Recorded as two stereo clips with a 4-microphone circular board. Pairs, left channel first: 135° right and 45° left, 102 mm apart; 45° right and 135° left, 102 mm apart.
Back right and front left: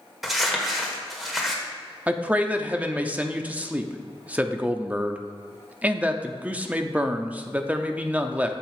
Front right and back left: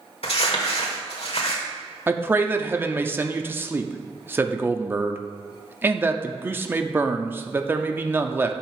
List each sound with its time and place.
0.2 s crumpling: 45° right, 1.4 m
2.1 s a man speaking: 100° left, 0.6 m